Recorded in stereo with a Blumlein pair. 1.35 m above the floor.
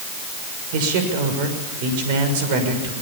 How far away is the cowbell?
I don't hear a cowbell.